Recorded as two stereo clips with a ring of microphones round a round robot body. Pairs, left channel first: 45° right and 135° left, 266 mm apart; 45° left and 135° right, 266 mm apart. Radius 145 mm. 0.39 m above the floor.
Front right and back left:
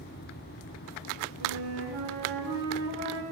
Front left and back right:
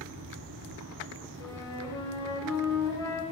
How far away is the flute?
About 3 m.